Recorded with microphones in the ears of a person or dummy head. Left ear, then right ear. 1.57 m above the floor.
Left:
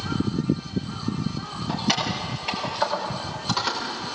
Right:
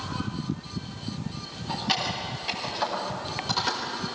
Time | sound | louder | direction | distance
1.7 | keys jangling | left 2 dB | 20° left (ahead or behind) | 6 m